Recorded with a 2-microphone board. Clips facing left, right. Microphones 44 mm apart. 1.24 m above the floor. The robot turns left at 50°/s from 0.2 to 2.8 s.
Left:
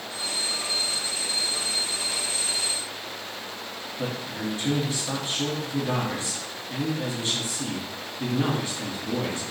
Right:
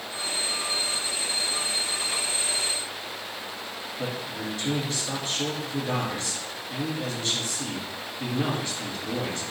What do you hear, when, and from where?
4.0 s a man speaking: 30° left (ahead or behind), 0.9 m